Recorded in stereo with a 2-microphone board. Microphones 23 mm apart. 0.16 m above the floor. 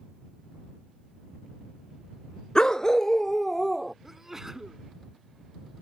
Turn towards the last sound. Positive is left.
turn(degrees=-20)  # may be behind; listen again after turning